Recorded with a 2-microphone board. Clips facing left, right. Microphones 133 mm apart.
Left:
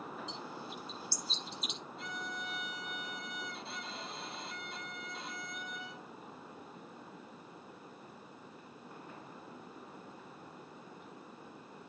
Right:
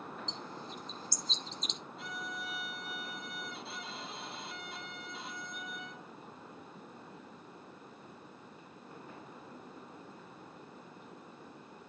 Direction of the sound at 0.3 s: 10° left (ahead or behind).